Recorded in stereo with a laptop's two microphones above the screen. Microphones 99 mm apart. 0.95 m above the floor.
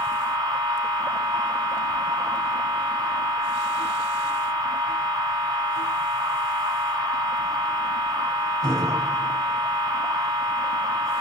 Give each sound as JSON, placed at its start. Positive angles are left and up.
{"t": 0.0, "sound": "a machine running", "side_deg": -35, "distance_m": 8.5}